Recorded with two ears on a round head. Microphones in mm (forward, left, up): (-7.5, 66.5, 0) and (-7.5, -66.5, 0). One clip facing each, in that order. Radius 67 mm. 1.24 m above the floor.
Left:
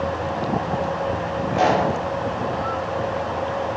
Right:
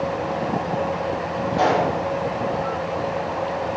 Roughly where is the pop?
Left.